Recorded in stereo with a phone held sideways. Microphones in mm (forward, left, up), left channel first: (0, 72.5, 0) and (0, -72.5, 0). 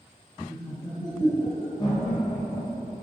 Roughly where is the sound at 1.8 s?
Left.